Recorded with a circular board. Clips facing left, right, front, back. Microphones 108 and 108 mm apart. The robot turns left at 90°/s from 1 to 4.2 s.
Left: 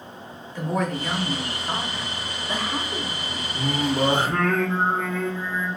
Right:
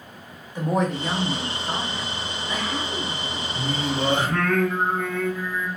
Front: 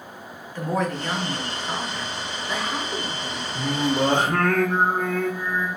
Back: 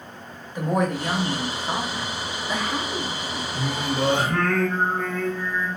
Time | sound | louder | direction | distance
0.6 | a woman speaking | right 2 dB, back 2 dB | 125° right | 0.9 m
3.5 | singing | left 3 dB, front 4 dB | 95° left | 0.8 m